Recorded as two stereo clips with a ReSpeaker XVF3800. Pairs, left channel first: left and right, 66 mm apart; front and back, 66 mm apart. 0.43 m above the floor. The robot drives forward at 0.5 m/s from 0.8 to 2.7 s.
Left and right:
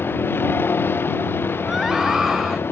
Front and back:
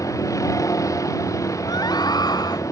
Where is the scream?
5° right.